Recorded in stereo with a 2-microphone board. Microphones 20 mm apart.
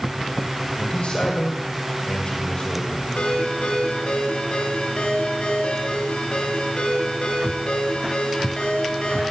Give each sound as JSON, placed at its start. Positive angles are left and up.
{"t": 0.8, "sound": "a man speaking", "side_deg": 60, "distance_m": 4.0}
{"t": 3.2, "sound": "a ringtone", "side_deg": 70, "distance_m": 6.5}